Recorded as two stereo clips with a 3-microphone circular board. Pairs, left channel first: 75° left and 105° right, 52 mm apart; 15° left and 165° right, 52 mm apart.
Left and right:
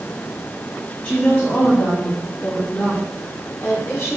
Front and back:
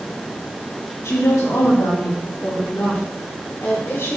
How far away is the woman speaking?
About 3 m.